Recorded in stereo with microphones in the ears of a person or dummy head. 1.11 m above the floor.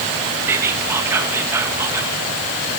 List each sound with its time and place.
0.5 s whispering: 15° right (ahead or behind), 1.0 m